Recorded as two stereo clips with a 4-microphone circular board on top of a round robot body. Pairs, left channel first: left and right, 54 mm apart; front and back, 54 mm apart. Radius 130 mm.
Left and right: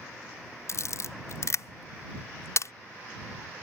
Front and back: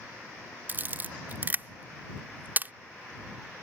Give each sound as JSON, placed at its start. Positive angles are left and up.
{"t": 0.7, "sound": "a camera shutter", "azimuth_deg": 125}